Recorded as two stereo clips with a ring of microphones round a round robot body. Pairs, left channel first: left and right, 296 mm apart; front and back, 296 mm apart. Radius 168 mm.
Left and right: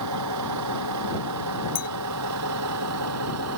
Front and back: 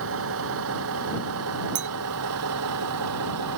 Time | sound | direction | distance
0.0 | a vehicle | 130° right | ?
1.8 | a clink | 155° left | ?